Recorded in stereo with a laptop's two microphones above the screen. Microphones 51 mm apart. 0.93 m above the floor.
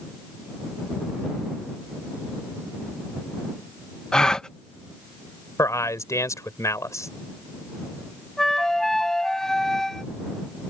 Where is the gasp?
15° left (ahead or behind).